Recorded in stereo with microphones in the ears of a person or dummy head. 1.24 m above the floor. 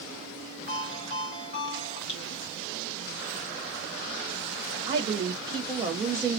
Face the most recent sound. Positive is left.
turn(degrees=-25)  # may be behind; listen again after turning